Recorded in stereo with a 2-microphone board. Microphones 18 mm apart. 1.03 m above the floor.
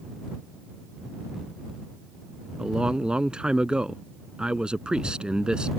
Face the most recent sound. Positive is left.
turn(degrees=-60)  # may be behind; listen again after turning